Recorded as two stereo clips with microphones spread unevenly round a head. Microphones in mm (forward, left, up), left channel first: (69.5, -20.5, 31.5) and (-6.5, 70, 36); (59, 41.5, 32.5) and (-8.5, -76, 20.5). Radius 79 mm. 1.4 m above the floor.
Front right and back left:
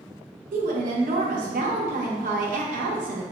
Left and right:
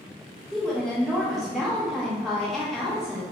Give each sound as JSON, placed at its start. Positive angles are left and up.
{"t": 0.5, "sound": "a woman speaking", "azimuth_deg": 150, "distance_m": 0.6}